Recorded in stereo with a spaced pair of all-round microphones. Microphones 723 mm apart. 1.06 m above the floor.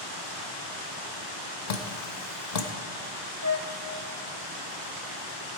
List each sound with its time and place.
1.7 s dripping: 65° left (ahead or behind), 0.9 m
3.4 s a flute: 20° left (ahead or behind), 1.0 m